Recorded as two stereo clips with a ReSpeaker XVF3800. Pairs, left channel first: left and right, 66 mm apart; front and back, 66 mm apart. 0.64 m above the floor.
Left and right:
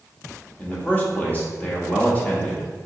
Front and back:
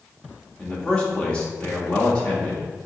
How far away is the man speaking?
About 1.0 m.